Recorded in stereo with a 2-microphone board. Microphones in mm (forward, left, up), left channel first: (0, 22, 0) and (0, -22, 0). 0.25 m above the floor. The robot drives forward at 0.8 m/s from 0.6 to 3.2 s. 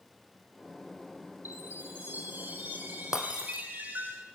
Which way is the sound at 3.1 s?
15° right (ahead or behind).